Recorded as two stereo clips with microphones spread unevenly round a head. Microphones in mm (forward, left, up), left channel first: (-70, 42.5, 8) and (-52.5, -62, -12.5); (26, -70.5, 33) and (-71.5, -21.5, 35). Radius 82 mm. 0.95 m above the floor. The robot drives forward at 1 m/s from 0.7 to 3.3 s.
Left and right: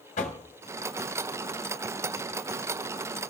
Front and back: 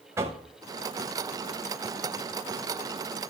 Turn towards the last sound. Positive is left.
turn(degrees=165)